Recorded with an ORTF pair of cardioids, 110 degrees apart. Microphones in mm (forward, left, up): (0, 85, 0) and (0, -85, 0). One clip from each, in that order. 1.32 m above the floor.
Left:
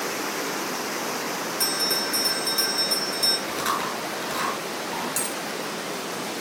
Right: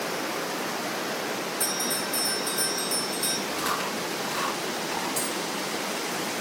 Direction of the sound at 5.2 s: 40° left.